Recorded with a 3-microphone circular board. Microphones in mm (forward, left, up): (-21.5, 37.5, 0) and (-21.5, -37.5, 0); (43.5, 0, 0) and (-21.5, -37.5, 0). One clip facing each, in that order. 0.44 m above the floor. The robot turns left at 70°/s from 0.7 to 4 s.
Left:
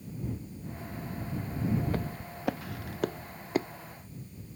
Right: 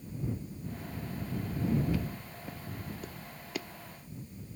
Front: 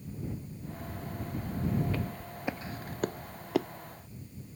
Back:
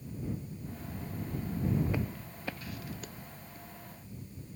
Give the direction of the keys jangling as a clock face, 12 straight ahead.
I don't hear keys jangling.